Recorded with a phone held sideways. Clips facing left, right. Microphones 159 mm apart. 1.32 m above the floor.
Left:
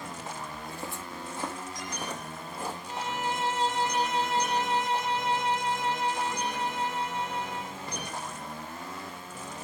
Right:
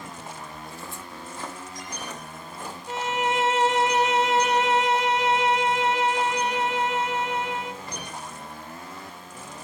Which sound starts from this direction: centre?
Footsteps, at 0.5 s.